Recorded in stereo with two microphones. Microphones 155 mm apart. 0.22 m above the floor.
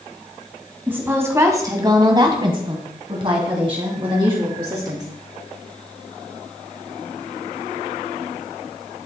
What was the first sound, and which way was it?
A woman speaking, 15° right (ahead or behind).